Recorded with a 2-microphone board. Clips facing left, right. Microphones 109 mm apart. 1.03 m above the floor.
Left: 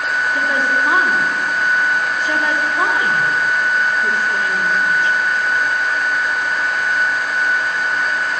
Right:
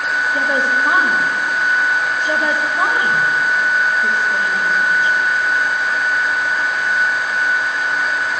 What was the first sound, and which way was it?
A woman speaking, 25° right (ahead or behind).